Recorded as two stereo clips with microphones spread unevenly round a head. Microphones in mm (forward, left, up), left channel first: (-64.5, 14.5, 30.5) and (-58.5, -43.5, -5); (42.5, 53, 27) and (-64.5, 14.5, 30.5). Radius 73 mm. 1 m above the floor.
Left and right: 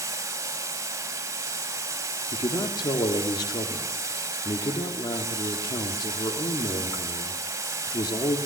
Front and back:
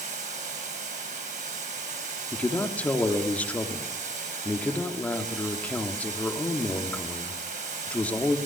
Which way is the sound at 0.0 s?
120° right.